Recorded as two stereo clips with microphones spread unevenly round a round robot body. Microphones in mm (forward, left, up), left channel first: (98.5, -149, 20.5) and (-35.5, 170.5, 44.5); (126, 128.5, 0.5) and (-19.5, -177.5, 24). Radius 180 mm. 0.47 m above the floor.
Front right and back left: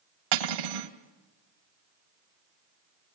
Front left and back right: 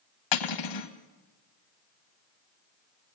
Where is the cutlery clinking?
95° left, 1.9 m.